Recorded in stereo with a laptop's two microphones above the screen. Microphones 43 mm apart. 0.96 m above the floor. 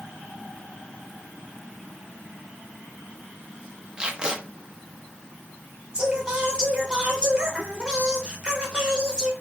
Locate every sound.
4.0 s tape being pulled: 20° right (ahead or behind), 0.9 m
5.9 s singing: 20° right (ahead or behind), 1.3 m